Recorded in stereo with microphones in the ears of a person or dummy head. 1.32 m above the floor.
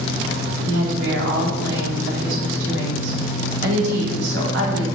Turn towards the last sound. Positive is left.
turn(degrees=-75)  # may be behind; listen again after turning